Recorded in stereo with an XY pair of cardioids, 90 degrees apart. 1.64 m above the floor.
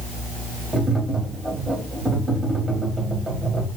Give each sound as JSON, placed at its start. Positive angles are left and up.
{"t": 0.7, "sound": "tapping", "azimuth_deg": -25, "distance_m": 1.9}